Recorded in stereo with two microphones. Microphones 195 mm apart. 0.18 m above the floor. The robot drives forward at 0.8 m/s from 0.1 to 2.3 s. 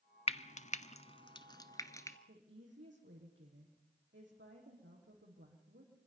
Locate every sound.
0.3 s frying: 30° left (ahead or behind), 0.6 m; by 2.2 s 15° left (ahead or behind), 1.3 m
2.3 s a woman speaking: 70° right (ahead or behind), 6.5 m